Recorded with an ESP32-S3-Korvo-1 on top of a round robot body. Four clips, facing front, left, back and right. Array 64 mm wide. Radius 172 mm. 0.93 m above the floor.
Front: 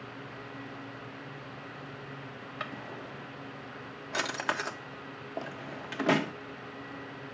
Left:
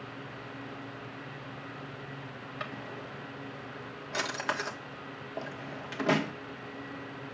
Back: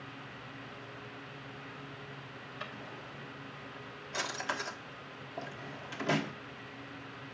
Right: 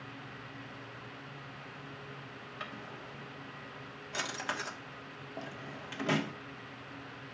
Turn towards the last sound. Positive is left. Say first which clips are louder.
# left 5 dB, front 6 dB
turn(degrees=20)